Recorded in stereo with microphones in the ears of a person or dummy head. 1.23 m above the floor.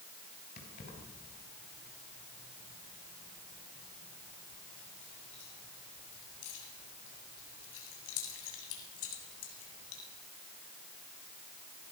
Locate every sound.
0.6 s keys jangling: 50° left (ahead or behind), 7.5 m; by 10.0 s 90° left, 8 m